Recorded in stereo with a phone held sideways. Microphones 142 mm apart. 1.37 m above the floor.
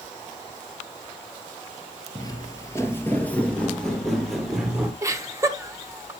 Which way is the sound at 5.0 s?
25° right (ahead or behind).